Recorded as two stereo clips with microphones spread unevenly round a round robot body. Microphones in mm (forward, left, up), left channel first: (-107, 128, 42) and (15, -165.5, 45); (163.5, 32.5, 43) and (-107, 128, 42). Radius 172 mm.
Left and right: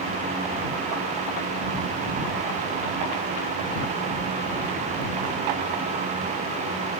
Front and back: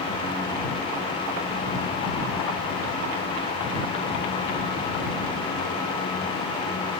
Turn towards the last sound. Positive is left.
No sound to turn to.